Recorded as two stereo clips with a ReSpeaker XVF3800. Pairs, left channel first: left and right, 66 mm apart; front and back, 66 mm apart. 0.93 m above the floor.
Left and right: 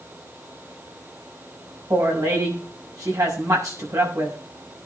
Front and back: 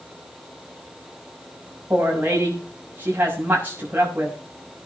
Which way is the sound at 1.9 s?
120° right.